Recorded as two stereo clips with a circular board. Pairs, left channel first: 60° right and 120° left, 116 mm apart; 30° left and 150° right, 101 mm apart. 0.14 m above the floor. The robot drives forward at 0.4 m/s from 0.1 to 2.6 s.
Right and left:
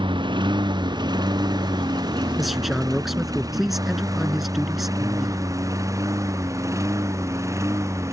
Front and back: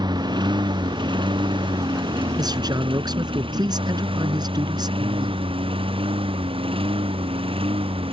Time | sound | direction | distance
0.0 | a lawn mower | 165° left | ?
2.4 | a man speaking | 150° right | ?